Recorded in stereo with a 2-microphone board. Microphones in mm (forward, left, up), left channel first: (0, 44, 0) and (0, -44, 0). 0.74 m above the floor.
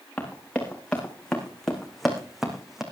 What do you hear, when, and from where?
0.2 s running footsteps: 10° left (ahead or behind), 3.5 m; by 2.8 s 5° right (ahead or behind), 2.5 m